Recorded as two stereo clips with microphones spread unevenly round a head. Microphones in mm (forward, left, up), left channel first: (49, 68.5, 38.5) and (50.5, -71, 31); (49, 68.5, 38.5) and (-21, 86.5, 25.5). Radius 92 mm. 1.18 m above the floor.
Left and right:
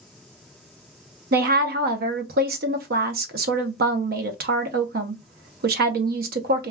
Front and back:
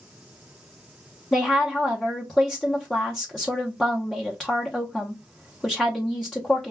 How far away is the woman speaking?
About 0.6 m.